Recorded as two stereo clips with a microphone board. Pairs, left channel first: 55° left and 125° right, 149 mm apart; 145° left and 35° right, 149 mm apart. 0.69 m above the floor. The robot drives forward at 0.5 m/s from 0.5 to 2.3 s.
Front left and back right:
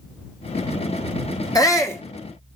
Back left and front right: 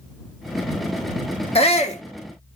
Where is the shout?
115° left, 1.3 m; by 2.0 s 125° left, 1.3 m.